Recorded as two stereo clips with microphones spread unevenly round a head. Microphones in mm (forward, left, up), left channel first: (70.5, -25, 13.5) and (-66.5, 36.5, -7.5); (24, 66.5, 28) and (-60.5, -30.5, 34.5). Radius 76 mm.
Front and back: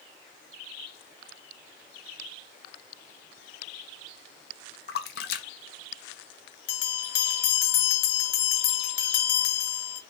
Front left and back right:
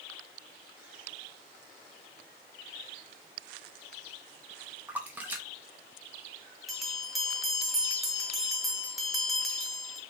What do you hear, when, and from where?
4.9 s a splash: 50° right, 0.5 m
6.7 s a bell: 45° right, 0.6 m